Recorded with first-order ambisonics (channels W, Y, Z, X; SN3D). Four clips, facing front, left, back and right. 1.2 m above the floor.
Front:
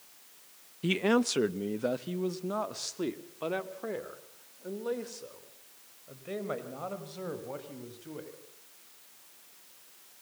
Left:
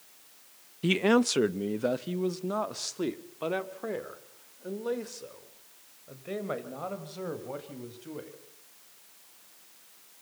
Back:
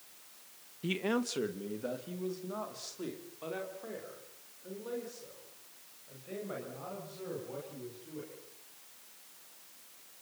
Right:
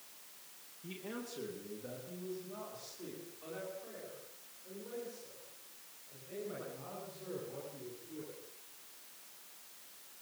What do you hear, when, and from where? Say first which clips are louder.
0.8 s a man speaking: left 21 dB, front 6 dB; 70° left, 0.6 m; by 8.3 s 60° left, 6.5 m